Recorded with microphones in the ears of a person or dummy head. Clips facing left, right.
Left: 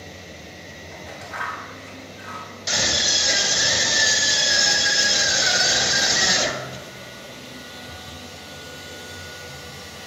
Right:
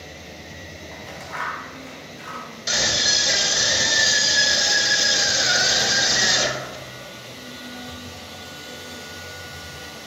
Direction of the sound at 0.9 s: 50° right (ahead or behind).